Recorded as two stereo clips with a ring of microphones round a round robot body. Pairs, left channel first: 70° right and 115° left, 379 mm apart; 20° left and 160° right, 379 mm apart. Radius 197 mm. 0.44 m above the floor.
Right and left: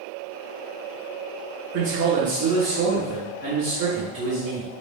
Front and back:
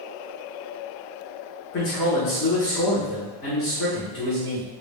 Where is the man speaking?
65° left, 1.4 m.